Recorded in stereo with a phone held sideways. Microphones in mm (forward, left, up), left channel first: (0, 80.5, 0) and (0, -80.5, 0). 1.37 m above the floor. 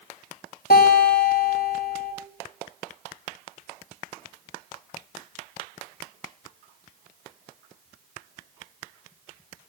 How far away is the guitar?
About 4.5 m.